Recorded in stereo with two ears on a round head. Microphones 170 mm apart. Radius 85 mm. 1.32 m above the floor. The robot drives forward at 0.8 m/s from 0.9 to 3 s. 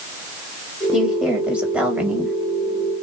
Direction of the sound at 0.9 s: 5° right (ahead or behind).